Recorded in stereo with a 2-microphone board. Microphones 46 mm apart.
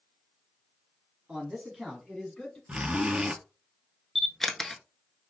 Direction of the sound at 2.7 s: 25° right (ahead or behind).